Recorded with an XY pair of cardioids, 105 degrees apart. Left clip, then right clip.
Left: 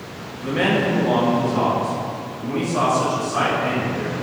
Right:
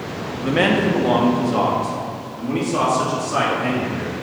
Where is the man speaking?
45° right, 1.2 m; by 4.1 s 75° right, 3.5 m.